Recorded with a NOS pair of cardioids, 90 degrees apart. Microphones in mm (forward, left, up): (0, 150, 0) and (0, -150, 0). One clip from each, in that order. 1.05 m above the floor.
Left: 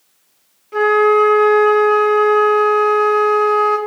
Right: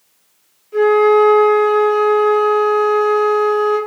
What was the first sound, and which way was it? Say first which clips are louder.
A flute: right 1 dB; 50° left.